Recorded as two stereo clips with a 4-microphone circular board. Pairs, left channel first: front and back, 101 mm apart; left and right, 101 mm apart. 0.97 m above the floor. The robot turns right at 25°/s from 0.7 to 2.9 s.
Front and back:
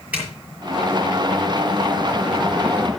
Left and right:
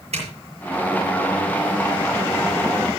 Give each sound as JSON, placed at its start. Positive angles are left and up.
{"t": 0.1, "sound": "a zipper", "azimuth_deg": -105, "distance_m": 8.0}